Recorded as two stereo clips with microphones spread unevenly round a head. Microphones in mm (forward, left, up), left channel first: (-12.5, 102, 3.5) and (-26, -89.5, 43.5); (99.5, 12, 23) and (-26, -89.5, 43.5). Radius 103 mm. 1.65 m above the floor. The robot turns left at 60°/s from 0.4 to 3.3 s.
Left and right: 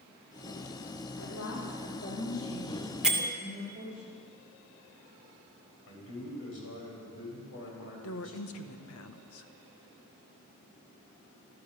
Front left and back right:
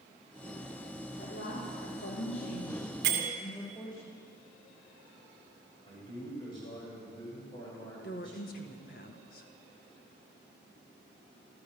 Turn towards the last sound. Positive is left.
turn(degrees=85)